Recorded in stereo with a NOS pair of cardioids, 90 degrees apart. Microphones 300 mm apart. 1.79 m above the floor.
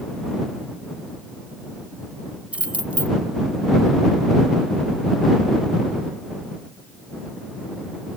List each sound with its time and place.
2.5 s keys jangling: 5° right